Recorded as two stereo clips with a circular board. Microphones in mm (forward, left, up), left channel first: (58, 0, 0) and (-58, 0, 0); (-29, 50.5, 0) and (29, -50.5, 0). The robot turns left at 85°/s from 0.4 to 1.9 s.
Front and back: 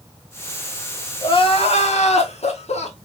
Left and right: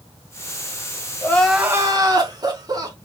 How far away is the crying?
About 0.7 m.